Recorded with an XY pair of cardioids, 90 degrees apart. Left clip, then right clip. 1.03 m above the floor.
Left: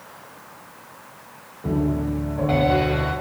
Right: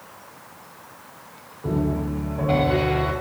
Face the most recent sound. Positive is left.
turn(degrees=10)